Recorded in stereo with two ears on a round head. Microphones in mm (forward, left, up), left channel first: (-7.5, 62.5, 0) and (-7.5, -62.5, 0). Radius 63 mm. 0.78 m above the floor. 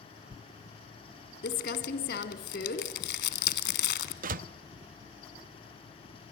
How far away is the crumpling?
About 1.6 m.